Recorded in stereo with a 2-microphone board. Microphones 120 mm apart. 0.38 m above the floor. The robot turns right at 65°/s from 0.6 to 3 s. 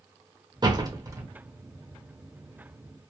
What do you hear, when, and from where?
0.6 s a door slam: 35° right (ahead or behind), 0.7 m; by 1.3 s 25° right (ahead or behind), 0.7 m